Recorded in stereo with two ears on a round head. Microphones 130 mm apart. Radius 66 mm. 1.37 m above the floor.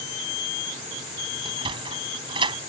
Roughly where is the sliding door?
Right.